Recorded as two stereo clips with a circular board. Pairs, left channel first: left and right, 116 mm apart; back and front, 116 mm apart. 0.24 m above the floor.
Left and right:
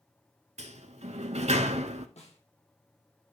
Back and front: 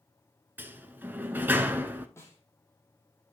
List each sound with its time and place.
0.6 s a sliding door: 75° right, 0.8 m
2.2 s a snare drum: 110° left, 2.5 m